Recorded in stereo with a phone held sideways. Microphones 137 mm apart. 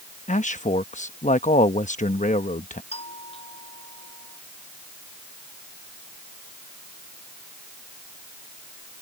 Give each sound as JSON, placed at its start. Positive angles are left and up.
{"t": 0.3, "sound": "a man speaking", "side_deg": 65}
{"t": 2.9, "sound": "a doorbell", "side_deg": 45}